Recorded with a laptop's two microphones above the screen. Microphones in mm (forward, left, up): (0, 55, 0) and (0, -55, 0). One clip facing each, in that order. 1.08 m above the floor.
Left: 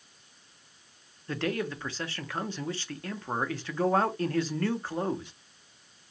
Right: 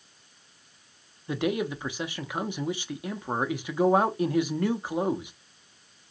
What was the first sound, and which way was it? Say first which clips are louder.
A man speaking: right 3 dB; 15° right (ahead or behind).